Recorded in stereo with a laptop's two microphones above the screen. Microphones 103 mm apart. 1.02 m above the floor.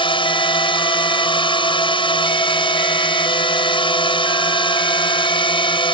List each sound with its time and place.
0.0 s a drone: 55° left (ahead or behind)